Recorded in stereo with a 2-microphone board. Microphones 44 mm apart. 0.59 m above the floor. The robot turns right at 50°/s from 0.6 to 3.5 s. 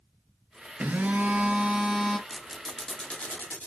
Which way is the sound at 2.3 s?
10° right (ahead or behind).